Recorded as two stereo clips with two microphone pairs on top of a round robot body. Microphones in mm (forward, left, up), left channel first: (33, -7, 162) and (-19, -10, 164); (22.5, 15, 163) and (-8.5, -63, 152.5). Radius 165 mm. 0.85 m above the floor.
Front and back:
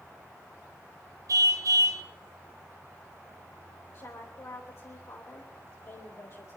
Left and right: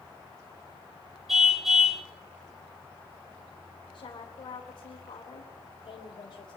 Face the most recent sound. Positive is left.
turn(degrees=35)